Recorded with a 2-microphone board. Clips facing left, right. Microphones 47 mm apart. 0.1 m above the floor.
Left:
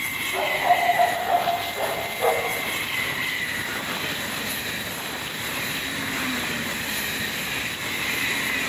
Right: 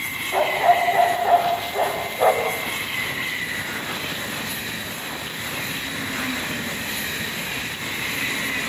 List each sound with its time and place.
0.3 s a dog barking: 60° right (ahead or behind), 6.5 m; by 2.6 s 70° right (ahead or behind), 5 m